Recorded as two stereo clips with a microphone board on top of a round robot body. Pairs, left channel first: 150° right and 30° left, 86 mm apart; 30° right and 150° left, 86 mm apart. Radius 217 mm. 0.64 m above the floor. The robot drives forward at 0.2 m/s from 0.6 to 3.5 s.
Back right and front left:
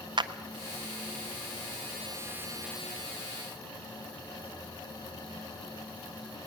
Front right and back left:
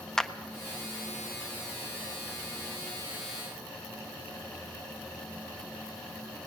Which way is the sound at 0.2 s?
55° left.